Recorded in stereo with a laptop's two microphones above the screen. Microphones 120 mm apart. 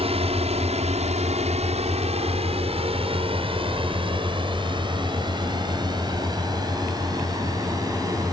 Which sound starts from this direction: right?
A drone, at 0.0 s.